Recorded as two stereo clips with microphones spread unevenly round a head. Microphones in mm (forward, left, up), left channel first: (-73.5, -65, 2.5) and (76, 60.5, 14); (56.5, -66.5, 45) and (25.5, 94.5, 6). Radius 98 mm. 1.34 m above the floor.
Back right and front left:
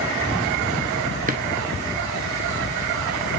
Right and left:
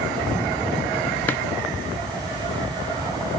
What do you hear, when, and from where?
1.3 s a drawer: 5° right, 1.6 m